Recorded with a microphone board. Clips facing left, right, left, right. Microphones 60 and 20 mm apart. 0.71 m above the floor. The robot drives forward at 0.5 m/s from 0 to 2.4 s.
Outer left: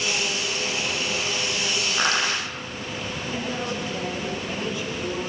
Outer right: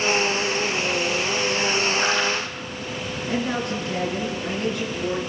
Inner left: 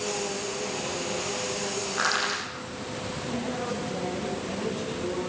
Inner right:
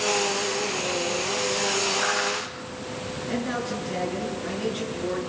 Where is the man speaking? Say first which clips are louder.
Outer right 5 dB, inner right 3 dB; 60° right (ahead or behind), 8 m.